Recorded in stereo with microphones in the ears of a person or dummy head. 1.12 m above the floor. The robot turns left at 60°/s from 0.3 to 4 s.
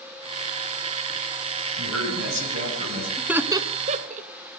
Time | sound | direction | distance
1.8 | a man speaking | 70° right | 7 m
3.2 | laughter | centre (ahead or behind) | 0.6 m